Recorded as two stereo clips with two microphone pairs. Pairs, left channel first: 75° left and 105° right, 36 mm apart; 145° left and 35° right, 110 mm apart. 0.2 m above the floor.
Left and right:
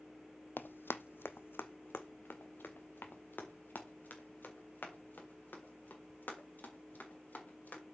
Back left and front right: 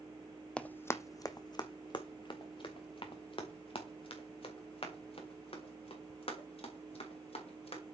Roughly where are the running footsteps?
Ahead left.